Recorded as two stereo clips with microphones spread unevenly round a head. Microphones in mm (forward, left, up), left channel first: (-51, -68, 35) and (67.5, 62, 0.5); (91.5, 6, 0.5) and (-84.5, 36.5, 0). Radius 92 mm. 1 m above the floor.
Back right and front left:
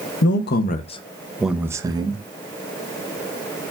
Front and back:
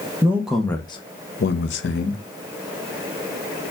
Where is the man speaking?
115° right, 0.7 m; by 2.2 s 10° right, 0.9 m.